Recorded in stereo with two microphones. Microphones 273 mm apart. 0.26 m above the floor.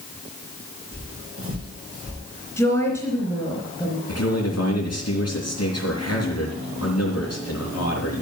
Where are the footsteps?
50° right (ahead or behind), 6 m; by 2.2 s 65° right (ahead or behind), 6.5 m.